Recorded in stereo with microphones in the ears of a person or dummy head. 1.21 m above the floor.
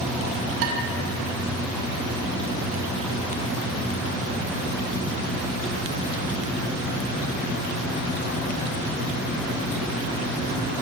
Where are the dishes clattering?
70° right (ahead or behind), 6 m.